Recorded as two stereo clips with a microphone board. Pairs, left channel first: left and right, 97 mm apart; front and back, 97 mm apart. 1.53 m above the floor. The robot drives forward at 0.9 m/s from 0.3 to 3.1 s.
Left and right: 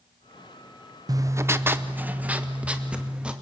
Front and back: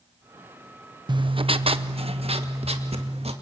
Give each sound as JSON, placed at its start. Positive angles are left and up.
{"t": 1.1, "sound": "writing", "azimuth_deg": -140, "distance_m": 0.6}